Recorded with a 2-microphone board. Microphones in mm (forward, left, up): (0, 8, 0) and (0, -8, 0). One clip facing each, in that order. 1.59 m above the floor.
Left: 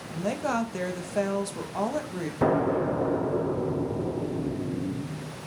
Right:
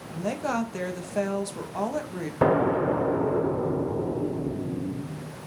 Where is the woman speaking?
Centre (ahead or behind), 0.6 m.